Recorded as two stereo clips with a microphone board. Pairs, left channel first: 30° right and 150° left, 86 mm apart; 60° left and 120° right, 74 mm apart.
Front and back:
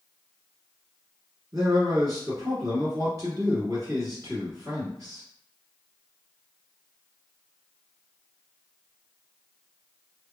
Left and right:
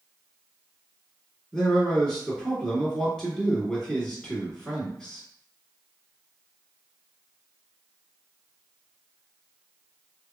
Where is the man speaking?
135° left, 1.9 m.